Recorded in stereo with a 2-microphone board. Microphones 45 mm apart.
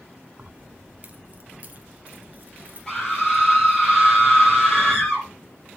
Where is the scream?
15° left (ahead or behind), 5.5 m.